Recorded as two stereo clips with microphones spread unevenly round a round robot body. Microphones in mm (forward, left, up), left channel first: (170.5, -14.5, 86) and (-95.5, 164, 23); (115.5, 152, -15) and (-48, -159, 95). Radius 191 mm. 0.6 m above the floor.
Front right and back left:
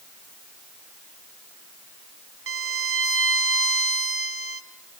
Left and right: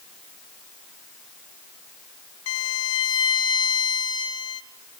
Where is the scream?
I don't hear a scream.